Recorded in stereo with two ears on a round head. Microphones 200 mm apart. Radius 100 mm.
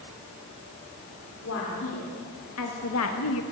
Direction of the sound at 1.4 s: 65° left (ahead or behind).